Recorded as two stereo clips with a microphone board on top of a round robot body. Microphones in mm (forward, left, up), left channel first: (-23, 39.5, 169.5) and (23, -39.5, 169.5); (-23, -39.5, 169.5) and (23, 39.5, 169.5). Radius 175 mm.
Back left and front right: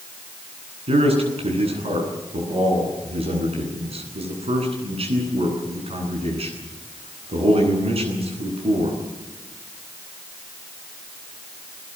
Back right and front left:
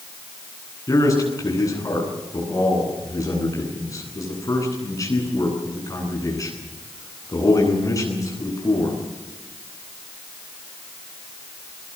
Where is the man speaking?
65° right, 10 m.